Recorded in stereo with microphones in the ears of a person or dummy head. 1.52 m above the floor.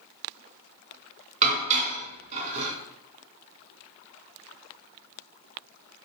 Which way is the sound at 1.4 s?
35° right (ahead or behind).